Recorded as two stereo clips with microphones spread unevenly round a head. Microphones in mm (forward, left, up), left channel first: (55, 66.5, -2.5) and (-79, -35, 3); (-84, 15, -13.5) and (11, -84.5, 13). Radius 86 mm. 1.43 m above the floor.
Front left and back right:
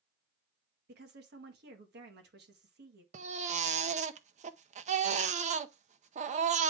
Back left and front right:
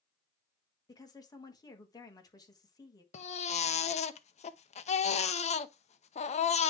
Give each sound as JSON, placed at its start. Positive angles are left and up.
{"t": 0.9, "sound": "a woman speaking", "azimuth_deg": -165, "distance_m": 1.7}
{"t": 3.1, "sound": "a baby crying", "azimuth_deg": 170, "distance_m": 0.7}